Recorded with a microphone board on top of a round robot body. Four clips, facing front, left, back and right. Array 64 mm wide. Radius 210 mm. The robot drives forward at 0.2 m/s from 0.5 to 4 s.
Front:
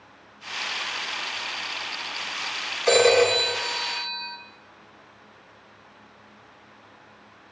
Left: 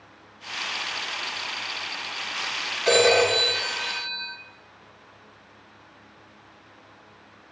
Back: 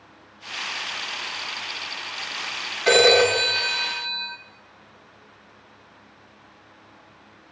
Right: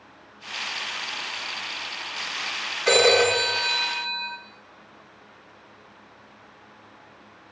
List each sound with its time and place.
2.9 s a phone ringing: 170° left, 5 m